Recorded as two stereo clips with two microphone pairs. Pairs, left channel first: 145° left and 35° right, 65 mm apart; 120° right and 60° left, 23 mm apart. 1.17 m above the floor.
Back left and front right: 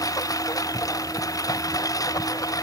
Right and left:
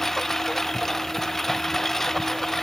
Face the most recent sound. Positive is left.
turn(degrees=170)